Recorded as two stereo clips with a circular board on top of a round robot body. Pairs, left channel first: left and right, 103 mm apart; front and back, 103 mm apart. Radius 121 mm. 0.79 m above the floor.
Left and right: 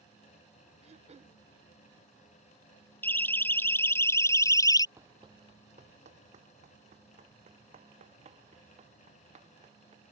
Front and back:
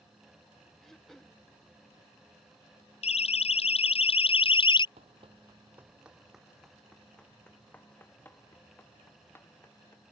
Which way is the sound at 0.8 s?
85° right.